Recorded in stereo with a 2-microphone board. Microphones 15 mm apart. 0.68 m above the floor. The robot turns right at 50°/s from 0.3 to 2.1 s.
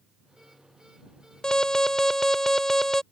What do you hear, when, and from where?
1.4 s an alarm: 115° left; by 3.0 s 150° left